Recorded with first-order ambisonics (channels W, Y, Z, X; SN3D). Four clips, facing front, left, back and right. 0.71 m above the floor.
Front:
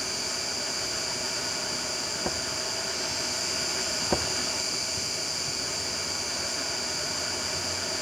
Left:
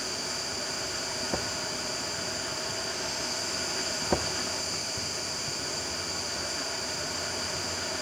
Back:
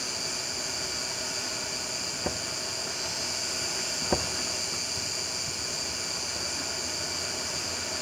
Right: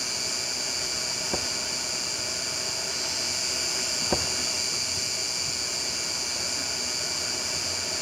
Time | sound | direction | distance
0.0 | an insect | 90° right | 4.5 m